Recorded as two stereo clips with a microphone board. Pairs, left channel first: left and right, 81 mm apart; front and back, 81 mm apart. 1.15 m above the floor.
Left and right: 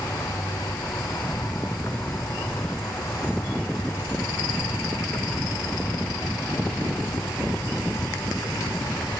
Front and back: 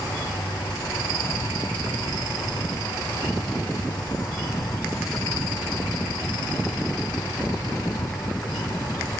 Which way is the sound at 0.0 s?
30° left.